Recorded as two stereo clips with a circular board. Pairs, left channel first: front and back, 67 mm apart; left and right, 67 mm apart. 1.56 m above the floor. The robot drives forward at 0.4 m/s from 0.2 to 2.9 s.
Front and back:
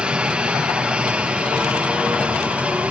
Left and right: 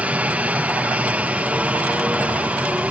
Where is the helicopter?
125° right; by 2.9 s 130° right.